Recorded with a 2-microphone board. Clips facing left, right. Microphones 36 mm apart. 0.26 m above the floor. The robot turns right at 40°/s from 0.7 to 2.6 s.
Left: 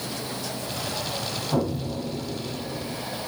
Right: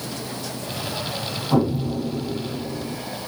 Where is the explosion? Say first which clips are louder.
Right 6 dB; 65° right, 4 m; by 3.0 s 25° right, 4 m.